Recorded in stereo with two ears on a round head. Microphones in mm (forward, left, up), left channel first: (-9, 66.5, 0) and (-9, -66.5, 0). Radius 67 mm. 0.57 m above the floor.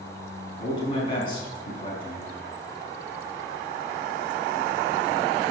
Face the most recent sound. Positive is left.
turn(degrees=35)  # may be behind; listen again after turning